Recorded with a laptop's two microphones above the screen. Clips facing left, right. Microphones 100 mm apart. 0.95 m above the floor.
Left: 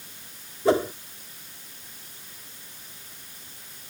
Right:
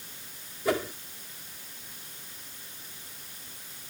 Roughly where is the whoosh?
Left.